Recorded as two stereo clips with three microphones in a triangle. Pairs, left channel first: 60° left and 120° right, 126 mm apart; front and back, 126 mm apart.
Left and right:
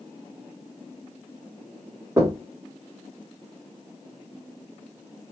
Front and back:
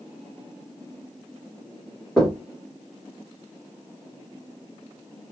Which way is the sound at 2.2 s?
80° right.